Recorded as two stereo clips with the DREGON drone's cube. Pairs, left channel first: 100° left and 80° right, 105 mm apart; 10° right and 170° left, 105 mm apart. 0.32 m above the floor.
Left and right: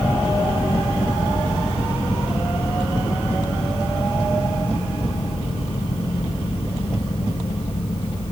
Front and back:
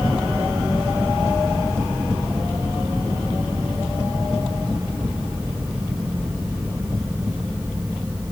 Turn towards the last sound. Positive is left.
No sound to turn to.